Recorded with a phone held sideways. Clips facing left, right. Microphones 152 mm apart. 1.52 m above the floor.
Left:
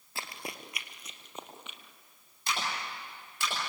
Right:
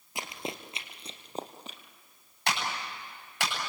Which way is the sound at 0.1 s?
15° right (ahead or behind).